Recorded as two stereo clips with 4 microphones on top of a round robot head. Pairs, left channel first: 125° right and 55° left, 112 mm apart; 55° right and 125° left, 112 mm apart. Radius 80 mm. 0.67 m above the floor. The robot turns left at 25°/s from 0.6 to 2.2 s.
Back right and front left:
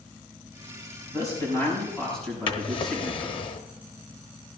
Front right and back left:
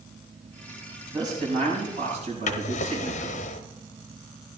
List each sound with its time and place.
1.1 s a man speaking: straight behind, 6 m; by 3.5 s 150° left, 6 m
2.5 s a drawer: 80° right, 0.9 m